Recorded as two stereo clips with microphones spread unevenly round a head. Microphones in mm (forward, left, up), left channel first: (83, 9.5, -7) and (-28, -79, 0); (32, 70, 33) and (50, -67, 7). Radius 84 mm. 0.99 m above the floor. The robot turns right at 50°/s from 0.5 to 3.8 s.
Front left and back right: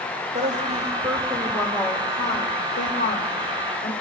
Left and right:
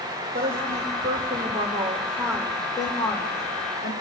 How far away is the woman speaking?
About 4 m.